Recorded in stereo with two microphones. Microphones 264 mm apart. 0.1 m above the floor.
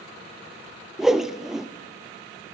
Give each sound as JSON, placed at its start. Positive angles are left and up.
{"t": 1.0, "sound": "a whoosh", "side_deg": 0, "distance_m": 0.5}